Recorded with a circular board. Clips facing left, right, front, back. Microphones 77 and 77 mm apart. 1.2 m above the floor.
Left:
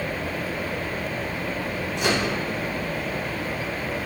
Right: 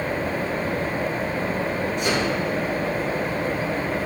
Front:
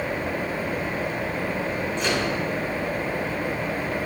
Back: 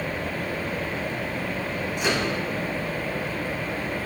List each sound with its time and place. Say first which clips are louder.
2.0 s a microwave: left 1 dB, back 1 dB; 100° left, 6 m